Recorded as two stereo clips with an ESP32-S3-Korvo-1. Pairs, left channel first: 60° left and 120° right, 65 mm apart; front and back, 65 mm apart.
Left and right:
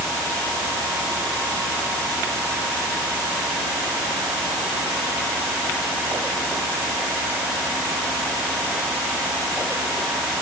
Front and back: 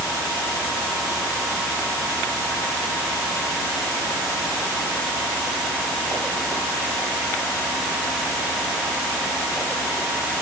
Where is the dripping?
I don't hear dripping.